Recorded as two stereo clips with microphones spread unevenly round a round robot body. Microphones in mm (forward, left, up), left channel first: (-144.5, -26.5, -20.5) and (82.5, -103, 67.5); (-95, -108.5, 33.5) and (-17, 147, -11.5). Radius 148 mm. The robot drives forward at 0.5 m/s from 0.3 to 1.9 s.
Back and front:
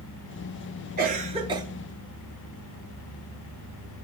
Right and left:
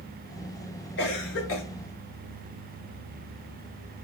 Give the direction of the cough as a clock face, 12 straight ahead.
3 o'clock.